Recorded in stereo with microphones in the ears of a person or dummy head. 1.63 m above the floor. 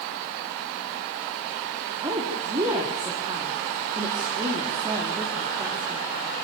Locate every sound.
2.0 s a woman speaking: 25° right (ahead or behind), 4 m